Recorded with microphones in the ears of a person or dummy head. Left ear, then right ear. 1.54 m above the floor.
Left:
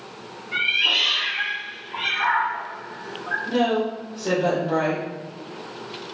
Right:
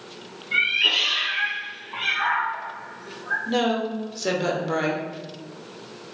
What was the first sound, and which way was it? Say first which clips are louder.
A cat meowing: even; 60° right (ahead or behind).